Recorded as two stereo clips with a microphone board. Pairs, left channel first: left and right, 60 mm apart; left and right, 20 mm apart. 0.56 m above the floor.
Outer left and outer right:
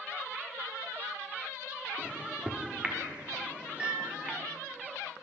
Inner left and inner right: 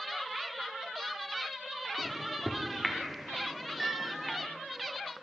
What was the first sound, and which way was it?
A microwave, 20° right (ahead or behind).